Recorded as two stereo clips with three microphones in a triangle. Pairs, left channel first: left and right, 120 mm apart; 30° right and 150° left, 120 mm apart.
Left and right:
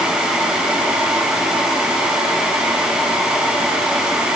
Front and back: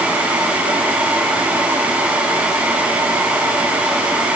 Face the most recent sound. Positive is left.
No sound to turn to.